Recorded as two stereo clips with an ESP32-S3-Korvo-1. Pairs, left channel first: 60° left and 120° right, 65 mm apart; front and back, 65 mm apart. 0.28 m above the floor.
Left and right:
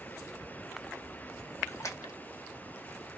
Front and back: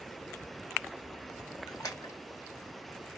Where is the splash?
20° left, 4 m.